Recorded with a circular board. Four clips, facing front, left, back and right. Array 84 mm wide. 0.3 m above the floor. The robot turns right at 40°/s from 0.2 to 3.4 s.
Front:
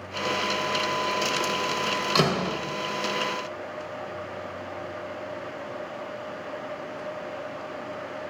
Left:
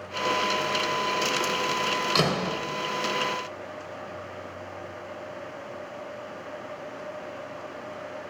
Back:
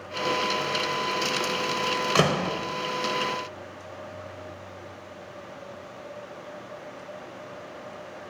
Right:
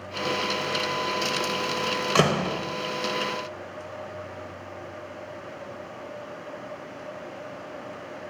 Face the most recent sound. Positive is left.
turn(degrees=-80)